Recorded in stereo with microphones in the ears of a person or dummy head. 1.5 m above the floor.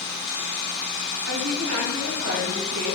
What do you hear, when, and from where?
1.2 s a woman speaking: 80° right, 4 m